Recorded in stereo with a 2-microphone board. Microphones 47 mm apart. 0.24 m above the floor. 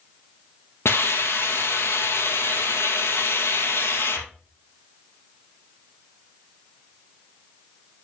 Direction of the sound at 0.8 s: 60° left (ahead or behind).